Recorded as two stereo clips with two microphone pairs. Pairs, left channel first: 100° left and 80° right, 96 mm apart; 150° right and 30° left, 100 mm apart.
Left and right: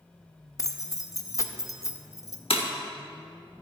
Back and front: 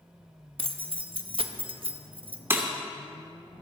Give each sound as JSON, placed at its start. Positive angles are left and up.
{"t": 0.6, "sound": "keys jangling", "azimuth_deg": 45, "distance_m": 0.7}
{"t": 2.5, "sound": "breaking glass", "azimuth_deg": 95, "distance_m": 1.2}